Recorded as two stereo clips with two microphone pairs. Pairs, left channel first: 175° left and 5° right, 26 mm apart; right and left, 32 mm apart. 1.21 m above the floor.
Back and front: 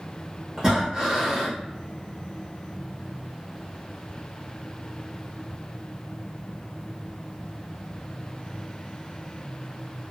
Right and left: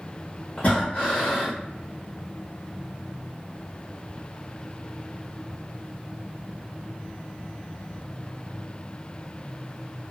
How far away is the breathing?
About 1.2 m.